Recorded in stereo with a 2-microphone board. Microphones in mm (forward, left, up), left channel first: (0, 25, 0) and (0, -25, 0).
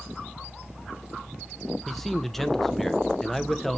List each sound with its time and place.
1.9 s a man speaking: 5° left (ahead or behind), 0.6 m